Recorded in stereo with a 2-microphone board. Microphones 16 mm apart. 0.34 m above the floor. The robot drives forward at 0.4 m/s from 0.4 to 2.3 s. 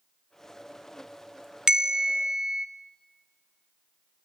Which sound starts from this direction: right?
A bell, at 1.7 s.